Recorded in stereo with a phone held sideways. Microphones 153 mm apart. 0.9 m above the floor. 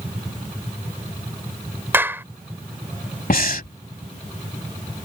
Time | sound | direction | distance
1.9 | a clap | 15° right (ahead or behind) | ?
3.3 | breathing | 65° left (ahead or behind) | ?